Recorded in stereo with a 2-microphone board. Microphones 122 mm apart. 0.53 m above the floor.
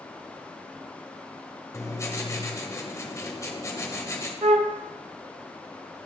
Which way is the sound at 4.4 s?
60° right (ahead or behind).